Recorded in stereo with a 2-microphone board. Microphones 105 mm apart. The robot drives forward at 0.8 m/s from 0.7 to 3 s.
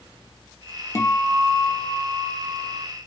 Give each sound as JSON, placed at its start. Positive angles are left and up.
{"t": 0.9, "sound": "a guitar", "side_deg": 25, "distance_m": 0.5}